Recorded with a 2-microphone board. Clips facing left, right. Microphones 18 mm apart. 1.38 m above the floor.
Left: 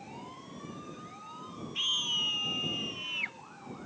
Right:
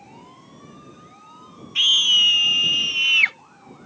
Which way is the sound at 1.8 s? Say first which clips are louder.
Right 15 dB; 40° right (ahead or behind).